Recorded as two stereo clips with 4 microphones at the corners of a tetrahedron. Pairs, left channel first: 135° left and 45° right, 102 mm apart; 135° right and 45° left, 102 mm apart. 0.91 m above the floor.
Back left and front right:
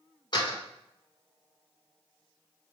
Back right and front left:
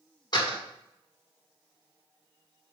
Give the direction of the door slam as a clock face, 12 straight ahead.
6 o'clock.